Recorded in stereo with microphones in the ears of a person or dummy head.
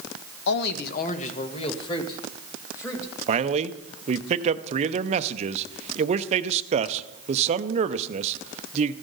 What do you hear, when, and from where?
0.5 s a man speaking: 65° left (ahead or behind), 1.2 m; by 3.1 s 15° left (ahead or behind), 2.5 m
3.3 s a man speaking: 35° right (ahead or behind), 0.7 m